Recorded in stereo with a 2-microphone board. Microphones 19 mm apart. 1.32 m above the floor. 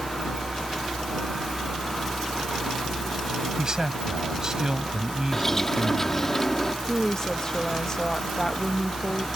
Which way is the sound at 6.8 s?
35° left (ahead or behind).